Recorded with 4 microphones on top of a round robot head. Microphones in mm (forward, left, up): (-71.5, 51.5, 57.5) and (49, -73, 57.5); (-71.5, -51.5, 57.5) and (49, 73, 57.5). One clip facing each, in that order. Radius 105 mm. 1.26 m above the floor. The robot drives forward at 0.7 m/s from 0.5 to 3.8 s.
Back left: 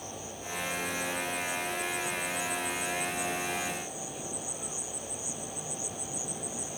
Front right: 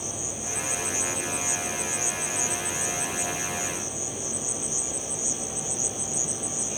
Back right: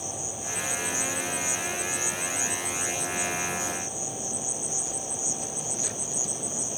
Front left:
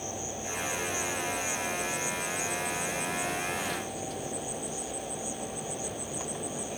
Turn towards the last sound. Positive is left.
turn(degrees=-90)